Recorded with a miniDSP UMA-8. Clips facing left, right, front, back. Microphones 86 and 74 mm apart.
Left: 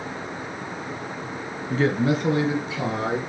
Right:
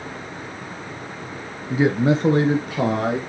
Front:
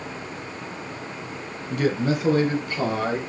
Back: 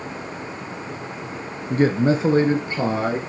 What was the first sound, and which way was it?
A man speaking, 170° right.